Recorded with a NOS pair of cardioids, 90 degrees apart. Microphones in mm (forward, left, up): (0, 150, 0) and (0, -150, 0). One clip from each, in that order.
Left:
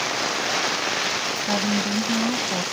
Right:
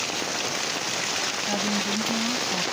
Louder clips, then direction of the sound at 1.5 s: Left 2 dB; 30° left.